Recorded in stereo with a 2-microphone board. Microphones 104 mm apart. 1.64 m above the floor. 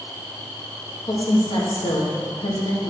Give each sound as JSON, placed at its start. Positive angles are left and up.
{"t": 1.0, "sound": "a woman speaking", "side_deg": 60, "distance_m": 1.9}